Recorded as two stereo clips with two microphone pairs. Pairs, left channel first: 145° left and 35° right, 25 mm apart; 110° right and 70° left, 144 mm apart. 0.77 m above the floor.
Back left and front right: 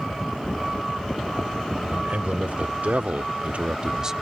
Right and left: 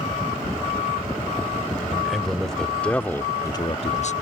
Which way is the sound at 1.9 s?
20° right.